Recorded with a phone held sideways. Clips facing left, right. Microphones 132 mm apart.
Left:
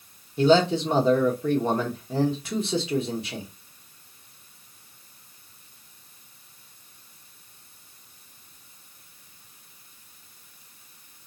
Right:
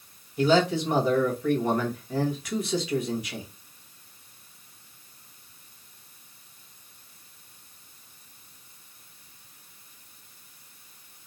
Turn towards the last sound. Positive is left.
turn(degrees=25)  # may be behind; listen again after turning